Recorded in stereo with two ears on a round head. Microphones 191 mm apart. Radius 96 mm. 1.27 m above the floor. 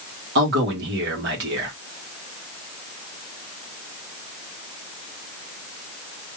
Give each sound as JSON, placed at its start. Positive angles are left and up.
{"t": 0.3, "sound": "a man speaking", "side_deg": -55, "distance_m": 1.9}